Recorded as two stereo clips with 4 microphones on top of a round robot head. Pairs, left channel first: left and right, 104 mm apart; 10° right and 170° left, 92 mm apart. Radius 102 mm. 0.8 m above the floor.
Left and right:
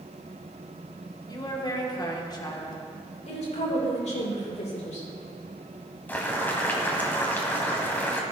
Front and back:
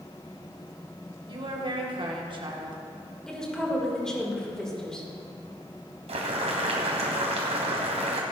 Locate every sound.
1.3 s a woman speaking: 140° left, 2 m
3.3 s a woman speaking: 75° left, 3 m
6.1 s boiling: 160° left, 1.5 m